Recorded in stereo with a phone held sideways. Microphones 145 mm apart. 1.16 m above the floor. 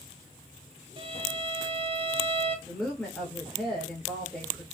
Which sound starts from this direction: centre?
A woman speaking, at 2.7 s.